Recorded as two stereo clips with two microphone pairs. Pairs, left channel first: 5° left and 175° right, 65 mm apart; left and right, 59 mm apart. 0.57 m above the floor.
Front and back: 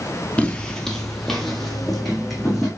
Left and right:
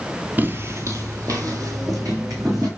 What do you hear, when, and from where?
0.4 s footsteps: 50° right, 0.6 m; by 2.7 s 85° right, 2.5 m